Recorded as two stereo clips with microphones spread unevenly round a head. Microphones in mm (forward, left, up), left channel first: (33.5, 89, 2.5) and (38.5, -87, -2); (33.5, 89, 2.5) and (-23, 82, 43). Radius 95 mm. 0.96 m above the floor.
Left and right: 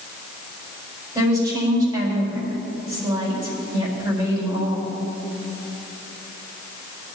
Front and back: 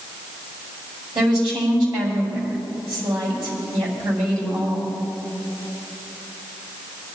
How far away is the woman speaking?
About 4 m.